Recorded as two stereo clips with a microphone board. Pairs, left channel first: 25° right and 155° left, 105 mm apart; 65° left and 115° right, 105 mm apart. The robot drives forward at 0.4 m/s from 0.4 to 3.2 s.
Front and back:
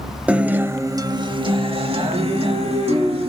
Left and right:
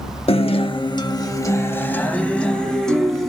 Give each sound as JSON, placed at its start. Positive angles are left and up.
{"t": 0.3, "sound": "a guitar", "azimuth_deg": 80, "distance_m": 0.5}